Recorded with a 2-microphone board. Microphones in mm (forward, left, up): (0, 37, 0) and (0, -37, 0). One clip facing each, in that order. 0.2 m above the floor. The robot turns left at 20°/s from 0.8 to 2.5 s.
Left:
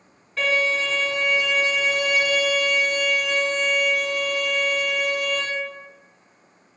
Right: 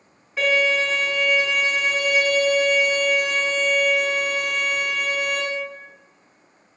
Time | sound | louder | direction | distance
0.4 | a violin | right 2 dB | 15° right | 1.0 m